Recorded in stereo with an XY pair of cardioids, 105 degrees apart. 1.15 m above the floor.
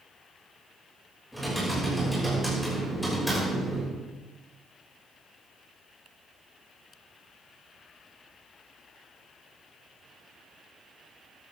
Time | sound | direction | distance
1.3 | typing on a keyboard | 5° left | 6 m